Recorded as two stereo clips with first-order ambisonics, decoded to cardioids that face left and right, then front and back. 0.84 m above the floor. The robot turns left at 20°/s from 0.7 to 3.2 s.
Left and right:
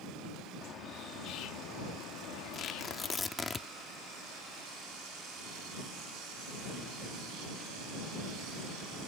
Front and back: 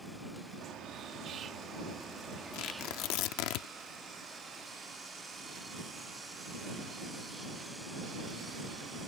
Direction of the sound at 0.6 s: 140° left.